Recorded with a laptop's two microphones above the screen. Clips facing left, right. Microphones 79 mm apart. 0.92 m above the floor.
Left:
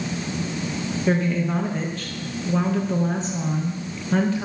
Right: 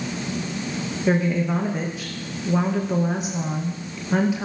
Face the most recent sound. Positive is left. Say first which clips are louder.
# right 1 dB
turn(degrees=-10)  # may be behind; listen again after turning